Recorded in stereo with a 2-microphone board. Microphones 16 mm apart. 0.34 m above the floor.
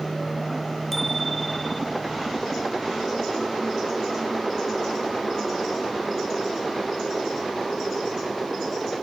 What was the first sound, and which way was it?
A bicycle bell, 10° left (ahead or behind).